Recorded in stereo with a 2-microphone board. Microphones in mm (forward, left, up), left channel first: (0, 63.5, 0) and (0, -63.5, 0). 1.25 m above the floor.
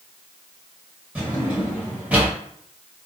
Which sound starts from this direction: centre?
A drawer, at 1.1 s.